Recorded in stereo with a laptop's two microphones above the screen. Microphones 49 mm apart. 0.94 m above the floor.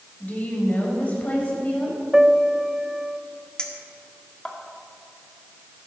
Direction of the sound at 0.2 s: 30° left (ahead or behind).